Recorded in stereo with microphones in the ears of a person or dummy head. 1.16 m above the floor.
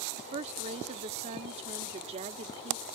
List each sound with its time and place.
0.2 s a woman speaking: 30° right (ahead or behind)